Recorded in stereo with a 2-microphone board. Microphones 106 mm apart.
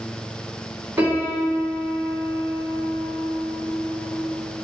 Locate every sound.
1.0 s a piano: 20° right (ahead or behind), 1.5 m